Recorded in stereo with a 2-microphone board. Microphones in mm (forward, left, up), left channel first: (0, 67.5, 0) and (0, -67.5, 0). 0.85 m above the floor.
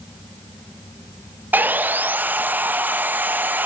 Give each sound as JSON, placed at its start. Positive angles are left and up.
{"t": 1.5, "sound": "sawing", "side_deg": -15, "distance_m": 0.6}